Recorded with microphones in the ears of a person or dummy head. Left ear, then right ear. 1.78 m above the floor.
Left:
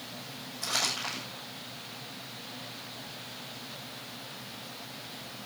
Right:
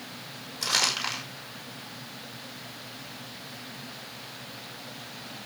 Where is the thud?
I don't hear a thud.